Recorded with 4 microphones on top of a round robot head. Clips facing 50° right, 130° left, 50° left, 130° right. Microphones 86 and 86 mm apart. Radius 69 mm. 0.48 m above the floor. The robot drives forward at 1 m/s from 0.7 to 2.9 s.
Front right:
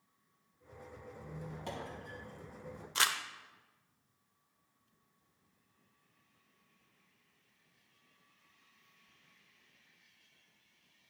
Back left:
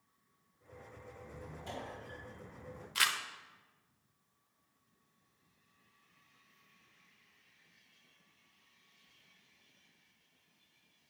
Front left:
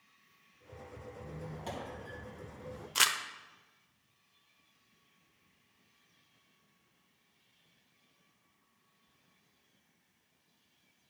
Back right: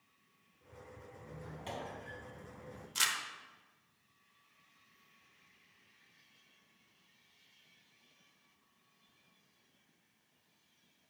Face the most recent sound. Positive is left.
turn(degrees=15)